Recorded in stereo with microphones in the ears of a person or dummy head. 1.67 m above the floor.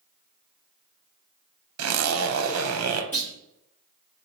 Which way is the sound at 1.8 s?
85° right.